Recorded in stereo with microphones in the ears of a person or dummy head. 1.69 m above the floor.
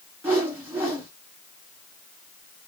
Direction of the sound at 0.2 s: 10° right (ahead or behind).